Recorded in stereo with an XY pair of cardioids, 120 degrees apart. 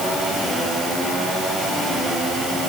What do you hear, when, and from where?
Only background noise.